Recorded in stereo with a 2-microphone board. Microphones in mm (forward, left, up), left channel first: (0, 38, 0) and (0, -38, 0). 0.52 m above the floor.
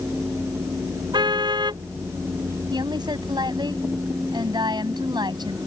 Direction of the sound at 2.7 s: 75° right (ahead or behind).